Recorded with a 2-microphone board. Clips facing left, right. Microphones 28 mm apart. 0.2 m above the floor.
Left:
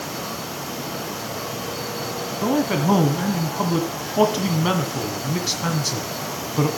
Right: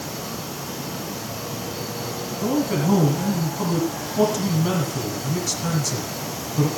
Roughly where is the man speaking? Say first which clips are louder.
Left 2 dB; left.